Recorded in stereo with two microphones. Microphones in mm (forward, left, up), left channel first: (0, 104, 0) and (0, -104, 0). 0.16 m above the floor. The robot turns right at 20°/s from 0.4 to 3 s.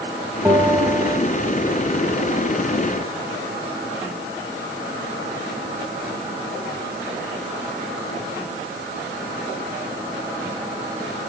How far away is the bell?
About 3.5 m.